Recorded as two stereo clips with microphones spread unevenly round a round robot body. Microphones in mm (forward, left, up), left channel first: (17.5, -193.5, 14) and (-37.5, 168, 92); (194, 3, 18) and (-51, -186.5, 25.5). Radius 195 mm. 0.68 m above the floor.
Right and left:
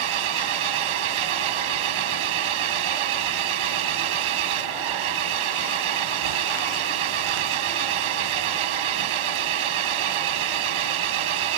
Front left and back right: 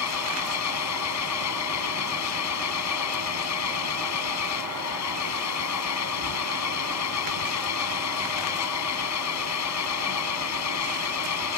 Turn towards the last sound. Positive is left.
turn(degrees=90)